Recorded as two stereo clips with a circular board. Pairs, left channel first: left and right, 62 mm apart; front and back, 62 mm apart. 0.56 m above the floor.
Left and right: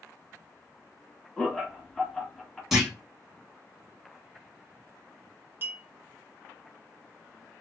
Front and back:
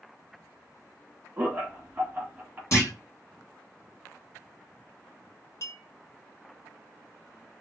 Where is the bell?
I don't hear a bell.